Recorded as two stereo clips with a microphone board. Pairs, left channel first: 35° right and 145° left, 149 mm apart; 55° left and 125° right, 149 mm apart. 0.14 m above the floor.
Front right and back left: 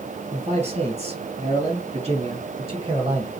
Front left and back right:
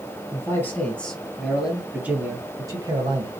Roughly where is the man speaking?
Behind left.